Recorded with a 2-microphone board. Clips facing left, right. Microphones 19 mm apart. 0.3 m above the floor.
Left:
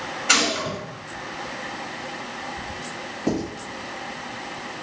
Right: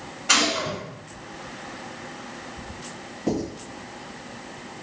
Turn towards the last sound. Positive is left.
turn(degrees=15)  # may be behind; listen again after turning